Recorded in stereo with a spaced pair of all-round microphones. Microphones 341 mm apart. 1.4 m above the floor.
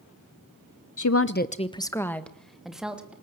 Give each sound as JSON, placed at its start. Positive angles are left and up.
{"t": 1.0, "sound": "a woman speaking", "side_deg": 65, "distance_m": 0.6}